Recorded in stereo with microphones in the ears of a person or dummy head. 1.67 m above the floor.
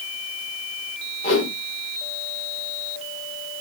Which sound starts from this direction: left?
A whoosh, at 1.2 s.